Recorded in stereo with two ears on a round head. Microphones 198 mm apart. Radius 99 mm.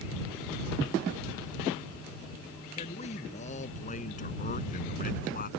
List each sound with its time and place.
2.8 s a man speaking: 30° left (ahead or behind); by 5.5 s 40° left (ahead or behind)